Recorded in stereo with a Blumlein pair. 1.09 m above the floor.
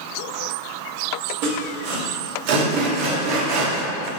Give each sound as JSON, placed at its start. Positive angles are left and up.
{"t": 1.4, "sound": "sawing", "azimuth_deg": -45, "distance_m": 1.5}